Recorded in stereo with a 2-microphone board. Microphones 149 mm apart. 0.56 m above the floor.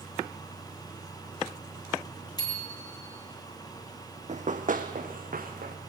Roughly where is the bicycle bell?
Left.